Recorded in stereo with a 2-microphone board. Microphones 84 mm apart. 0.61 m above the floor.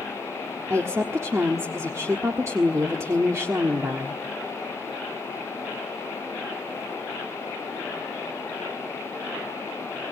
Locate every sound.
0.7 s a woman speaking: 30° right (ahead or behind), 1.5 m